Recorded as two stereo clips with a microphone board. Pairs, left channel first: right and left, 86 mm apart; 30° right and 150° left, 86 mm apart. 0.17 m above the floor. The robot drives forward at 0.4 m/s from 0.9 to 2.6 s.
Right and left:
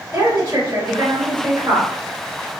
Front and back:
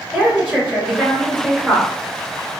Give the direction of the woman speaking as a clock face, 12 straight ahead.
10 o'clock.